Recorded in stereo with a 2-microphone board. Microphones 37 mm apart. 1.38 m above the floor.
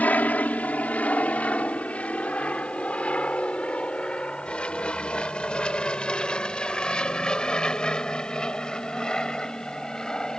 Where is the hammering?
I don't hear hammering.